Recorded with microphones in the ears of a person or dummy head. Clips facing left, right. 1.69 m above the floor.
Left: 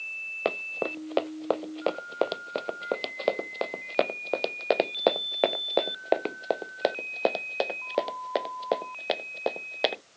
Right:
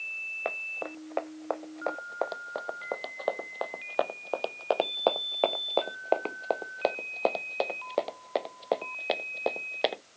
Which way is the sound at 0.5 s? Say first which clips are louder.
Left 7 dB; 55° left (ahead or behind).